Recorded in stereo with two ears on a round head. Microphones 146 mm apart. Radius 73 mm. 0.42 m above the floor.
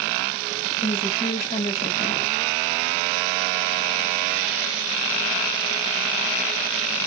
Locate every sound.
0.8 s a woman speaking: 45° left (ahead or behind), 2.5 m